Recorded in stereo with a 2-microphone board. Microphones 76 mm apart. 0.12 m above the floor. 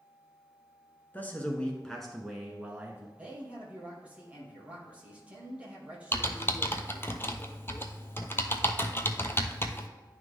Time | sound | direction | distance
1.1 | a man speaking | 25° left (ahead or behind) | 1.2 m
3.2 | a man speaking | 20° right (ahead or behind) | 2.5 m
6.1 | typing on a keyboard | 30° left (ahead or behind) | 0.6 m